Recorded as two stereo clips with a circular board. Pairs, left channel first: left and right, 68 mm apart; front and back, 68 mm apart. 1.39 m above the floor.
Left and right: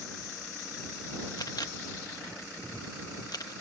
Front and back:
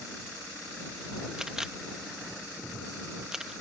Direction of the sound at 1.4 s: 100° left.